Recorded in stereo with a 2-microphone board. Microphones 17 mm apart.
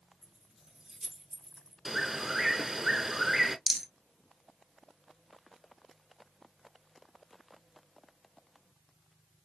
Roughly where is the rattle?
Centre.